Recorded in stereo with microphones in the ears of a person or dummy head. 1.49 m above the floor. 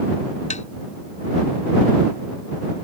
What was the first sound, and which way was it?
Tapping, 40° left (ahead or behind).